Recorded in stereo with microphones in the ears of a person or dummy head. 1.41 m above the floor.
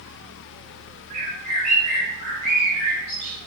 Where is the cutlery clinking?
No cutlery clinking in this recording.